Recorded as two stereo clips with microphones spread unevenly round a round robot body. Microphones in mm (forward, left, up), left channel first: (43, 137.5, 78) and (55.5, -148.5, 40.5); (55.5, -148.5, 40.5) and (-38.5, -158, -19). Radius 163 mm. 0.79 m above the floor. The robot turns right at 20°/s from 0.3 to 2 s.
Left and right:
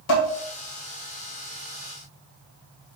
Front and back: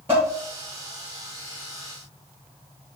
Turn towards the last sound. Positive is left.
turn(degrees=140)